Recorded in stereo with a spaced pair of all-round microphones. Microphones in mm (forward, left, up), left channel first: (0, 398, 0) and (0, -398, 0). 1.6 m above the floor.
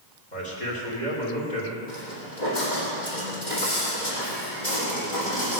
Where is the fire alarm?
I don't hear a fire alarm.